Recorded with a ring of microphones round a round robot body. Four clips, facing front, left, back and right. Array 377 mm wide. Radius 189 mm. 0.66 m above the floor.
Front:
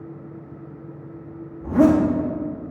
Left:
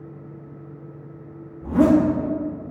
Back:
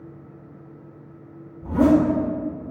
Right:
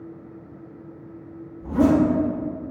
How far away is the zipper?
About 1.1 m.